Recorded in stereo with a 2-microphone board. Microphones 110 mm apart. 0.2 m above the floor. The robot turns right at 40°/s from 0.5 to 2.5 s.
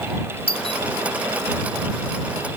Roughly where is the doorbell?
Left.